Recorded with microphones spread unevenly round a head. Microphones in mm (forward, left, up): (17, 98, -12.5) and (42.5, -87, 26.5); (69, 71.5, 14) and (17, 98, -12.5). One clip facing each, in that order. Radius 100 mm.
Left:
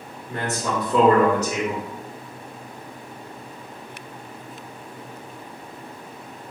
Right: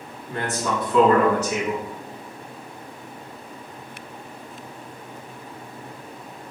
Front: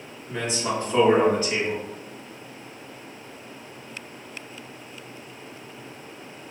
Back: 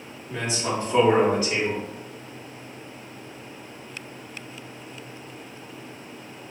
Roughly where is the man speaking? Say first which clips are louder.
Even, even; left.